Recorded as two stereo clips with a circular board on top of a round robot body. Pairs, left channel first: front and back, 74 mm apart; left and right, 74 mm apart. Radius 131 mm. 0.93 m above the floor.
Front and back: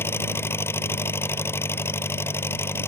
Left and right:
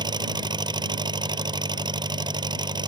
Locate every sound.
0.0 s an engine running: 60° right